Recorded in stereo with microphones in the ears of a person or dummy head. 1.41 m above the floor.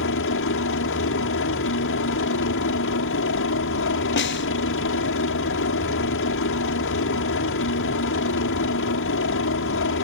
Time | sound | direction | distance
0.0 | a helicopter | 55° left (ahead or behind) | ?
4.2 | a snare drum | 50° left (ahead or behind) | ?